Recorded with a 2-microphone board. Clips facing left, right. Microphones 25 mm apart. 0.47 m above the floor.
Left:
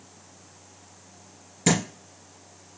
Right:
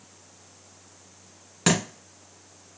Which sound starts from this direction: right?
A thud, at 1.7 s.